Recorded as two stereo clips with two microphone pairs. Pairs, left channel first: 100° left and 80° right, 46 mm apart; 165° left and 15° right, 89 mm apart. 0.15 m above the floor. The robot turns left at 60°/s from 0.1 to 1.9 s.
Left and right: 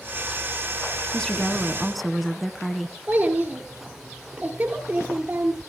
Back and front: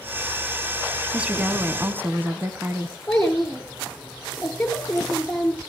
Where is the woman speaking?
50° left, 1.1 m; by 3.0 s 5° left, 1.1 m.